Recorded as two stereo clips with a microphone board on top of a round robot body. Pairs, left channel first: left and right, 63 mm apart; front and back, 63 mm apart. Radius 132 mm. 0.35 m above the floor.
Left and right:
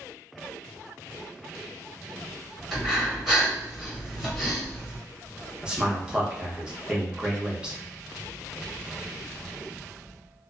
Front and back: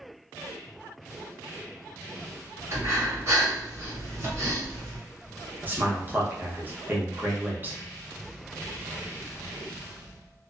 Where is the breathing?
Straight behind, 1.5 m.